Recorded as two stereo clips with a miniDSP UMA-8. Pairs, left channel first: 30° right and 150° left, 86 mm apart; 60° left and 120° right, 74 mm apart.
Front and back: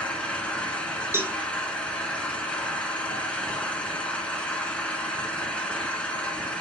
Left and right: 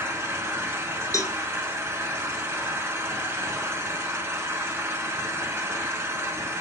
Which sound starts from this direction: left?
A cowbell, at 1.1 s.